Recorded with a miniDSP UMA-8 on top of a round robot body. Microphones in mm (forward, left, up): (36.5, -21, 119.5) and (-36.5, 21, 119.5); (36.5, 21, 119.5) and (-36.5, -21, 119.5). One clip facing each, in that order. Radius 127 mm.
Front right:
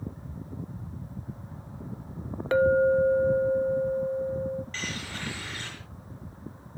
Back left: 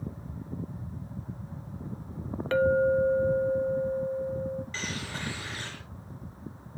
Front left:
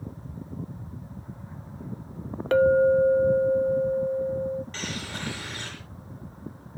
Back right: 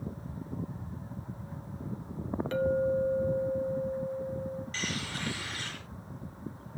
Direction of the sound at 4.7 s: 75° left.